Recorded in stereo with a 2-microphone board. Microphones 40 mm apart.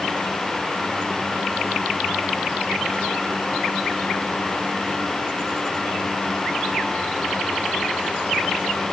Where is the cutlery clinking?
No cutlery clinking in this recording.